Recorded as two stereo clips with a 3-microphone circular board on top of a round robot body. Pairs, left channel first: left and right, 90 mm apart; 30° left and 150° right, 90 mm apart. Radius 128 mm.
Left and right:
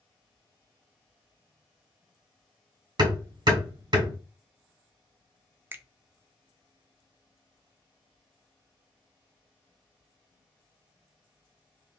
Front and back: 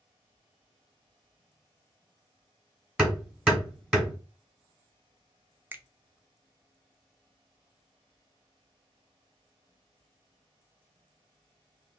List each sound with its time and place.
3.0 s hammering: 70° right, 1.9 m
5.7 s a finger snap: 115° right, 0.7 m